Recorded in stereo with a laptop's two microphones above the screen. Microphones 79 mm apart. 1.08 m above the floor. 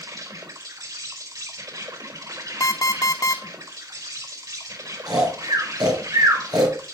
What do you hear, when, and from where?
0.0 s an insect: 65° right (ahead or behind), 4 m
2.6 s an alarm clock: 45° left (ahead or behind), 1.0 m
5.1 s snoring: 65° right (ahead or behind), 4 m